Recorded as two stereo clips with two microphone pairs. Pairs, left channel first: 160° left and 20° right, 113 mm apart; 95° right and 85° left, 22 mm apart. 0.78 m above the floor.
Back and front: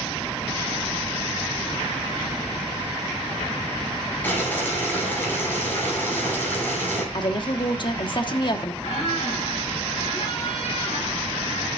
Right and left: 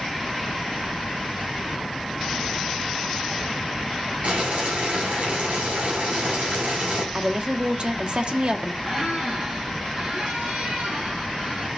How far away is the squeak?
About 5 m.